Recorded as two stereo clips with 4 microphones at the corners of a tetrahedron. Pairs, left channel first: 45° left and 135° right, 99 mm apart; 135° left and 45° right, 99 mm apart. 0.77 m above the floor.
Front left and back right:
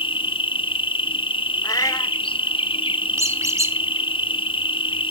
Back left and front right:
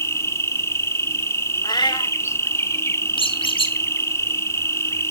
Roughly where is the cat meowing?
Left.